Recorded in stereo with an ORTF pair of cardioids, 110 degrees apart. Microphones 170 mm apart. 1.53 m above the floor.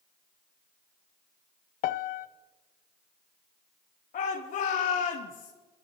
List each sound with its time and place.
1.8 s a piano: 60° left, 0.6 m
4.1 s a shout: 55° left, 2.5 m